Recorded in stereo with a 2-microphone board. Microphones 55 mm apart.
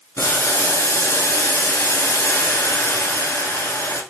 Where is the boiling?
65° left (ahead or behind), 1.1 m.